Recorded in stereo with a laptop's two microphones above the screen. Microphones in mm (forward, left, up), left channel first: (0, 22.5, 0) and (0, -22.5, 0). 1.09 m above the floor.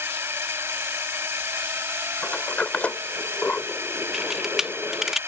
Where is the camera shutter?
5° right (ahead or behind).